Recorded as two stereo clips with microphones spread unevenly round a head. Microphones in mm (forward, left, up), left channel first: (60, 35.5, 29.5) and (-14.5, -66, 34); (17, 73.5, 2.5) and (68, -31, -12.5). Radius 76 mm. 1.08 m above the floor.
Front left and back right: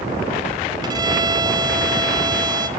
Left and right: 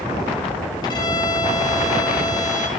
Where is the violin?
Straight behind, 0.9 m.